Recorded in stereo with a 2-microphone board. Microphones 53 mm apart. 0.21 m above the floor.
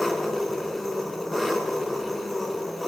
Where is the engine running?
5° left (ahead or behind), 0.7 m.